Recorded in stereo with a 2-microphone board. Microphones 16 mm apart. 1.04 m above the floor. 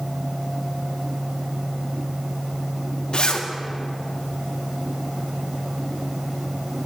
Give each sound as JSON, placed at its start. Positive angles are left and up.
{"t": 3.1, "sound": "a zipper", "side_deg": 55, "distance_m": 0.5}